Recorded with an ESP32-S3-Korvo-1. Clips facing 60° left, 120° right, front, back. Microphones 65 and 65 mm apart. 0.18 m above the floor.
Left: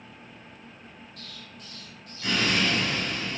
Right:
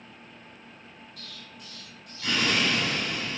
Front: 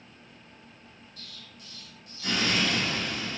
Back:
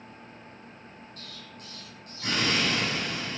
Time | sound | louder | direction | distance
1.2 | an explosion | left 1 dB, back 4 dB | 150° left | 1.3 m